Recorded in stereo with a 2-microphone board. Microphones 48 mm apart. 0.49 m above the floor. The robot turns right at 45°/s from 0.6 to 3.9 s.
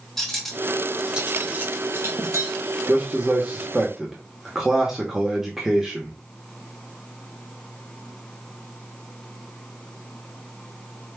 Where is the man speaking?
55° right, 0.9 m; by 6.2 s 10° right, 0.9 m.